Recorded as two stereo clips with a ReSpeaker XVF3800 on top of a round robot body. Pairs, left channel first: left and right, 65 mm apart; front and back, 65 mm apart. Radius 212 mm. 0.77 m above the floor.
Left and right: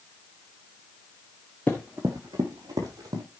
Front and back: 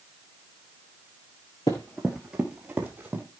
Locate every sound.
1.7 s running footsteps: 30° left, 0.8 m; by 3.2 s 115° right, 1.6 m